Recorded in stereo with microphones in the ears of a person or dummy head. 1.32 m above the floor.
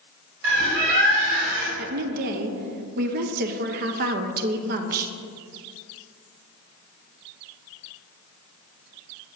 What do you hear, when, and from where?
0.4 s a bird: 60° right (ahead or behind), 3 m
1.8 s a woman speaking: 50° right (ahead or behind), 0.8 m